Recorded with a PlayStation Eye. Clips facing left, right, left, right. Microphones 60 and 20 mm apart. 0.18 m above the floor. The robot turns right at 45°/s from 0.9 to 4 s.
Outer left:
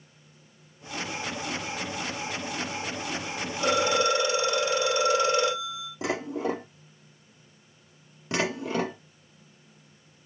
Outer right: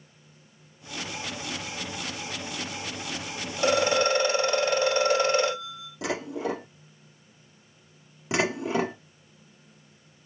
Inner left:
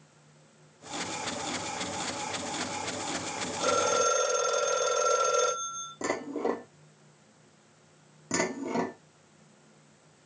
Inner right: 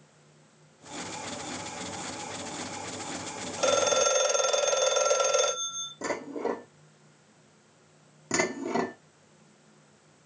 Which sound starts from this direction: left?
Dishes clattering, at 6.0 s.